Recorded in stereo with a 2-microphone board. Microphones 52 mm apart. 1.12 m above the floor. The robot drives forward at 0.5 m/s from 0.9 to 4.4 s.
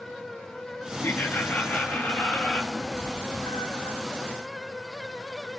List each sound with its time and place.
1.0 s laughter: 40° left (ahead or behind), 1.3 m; by 2.6 s 25° left (ahead or behind), 1.9 m
2.7 s a cat meowing: 75° left (ahead or behind), 7 m; by 4.0 s 80° left, 7 m